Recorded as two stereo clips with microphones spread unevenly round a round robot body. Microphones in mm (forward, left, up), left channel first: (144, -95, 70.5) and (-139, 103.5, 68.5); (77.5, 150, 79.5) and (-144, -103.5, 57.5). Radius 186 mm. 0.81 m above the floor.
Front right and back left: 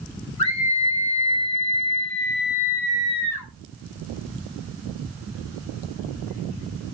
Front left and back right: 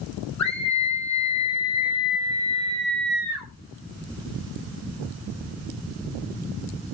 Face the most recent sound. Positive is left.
turn(degrees=5)